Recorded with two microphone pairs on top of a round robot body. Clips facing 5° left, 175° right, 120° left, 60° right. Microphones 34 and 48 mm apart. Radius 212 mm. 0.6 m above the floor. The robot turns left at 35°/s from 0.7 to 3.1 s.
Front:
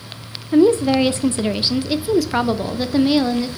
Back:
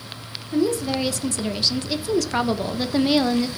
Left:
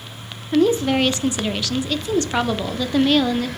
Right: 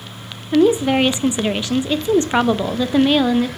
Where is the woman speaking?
15° right, 0.9 m; by 3.5 s 100° right, 0.9 m.